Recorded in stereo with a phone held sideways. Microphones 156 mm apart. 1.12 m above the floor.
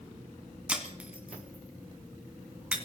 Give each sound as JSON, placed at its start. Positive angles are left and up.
{"t": 0.7, "sound": "breaking glass", "side_deg": -10, "distance_m": 2.0}